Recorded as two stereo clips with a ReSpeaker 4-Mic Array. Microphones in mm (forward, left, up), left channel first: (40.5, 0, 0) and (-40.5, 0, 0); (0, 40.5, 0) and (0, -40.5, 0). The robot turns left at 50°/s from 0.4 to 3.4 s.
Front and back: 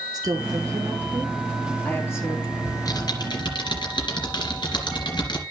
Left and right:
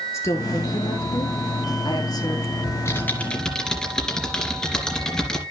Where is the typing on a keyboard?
45° left, 3 m; by 5.4 s 10° left, 3 m.